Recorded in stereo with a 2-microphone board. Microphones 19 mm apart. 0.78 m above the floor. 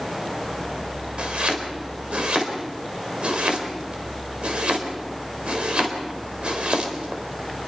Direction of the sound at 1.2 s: 75° right (ahead or behind).